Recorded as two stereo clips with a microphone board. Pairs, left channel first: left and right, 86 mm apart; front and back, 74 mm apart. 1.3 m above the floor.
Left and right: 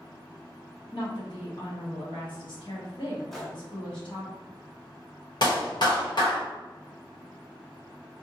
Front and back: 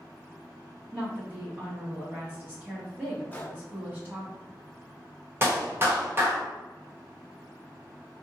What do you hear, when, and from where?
0.9 s a woman speaking: 115° left, 1.7 m
3.3 s a gunshot: 5° left, 0.8 m
5.4 s a clap: 125° left, 1.0 m